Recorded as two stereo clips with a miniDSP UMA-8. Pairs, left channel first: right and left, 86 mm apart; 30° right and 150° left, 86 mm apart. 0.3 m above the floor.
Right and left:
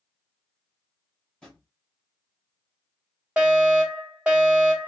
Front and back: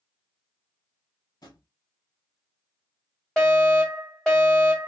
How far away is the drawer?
About 1.4 m.